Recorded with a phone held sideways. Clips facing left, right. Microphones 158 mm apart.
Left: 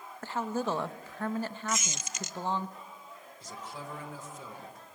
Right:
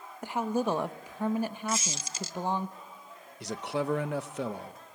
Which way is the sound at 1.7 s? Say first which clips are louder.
Right 2 dB; 30° right (ahead or behind).